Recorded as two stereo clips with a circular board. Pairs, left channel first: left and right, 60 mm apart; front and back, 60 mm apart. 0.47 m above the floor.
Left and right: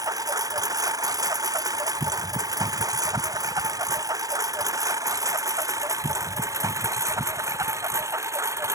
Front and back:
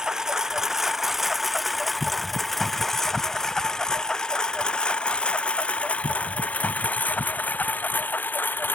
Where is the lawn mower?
100° right; by 8.8 s 55° right.